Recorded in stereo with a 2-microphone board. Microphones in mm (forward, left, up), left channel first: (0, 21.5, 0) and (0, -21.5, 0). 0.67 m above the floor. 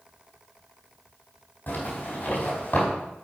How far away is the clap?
No clap in this recording.